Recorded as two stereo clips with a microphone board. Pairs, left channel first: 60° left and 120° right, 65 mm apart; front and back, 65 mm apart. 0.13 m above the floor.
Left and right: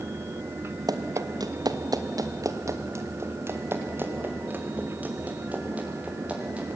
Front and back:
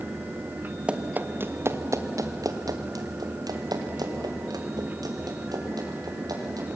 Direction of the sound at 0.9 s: 105° right.